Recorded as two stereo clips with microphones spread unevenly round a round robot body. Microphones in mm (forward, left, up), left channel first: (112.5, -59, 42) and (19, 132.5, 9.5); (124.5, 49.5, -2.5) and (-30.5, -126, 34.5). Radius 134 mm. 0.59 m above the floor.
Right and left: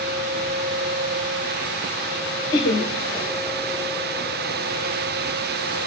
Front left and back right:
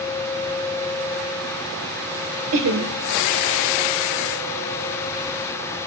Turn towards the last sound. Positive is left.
turn(degrees=-135)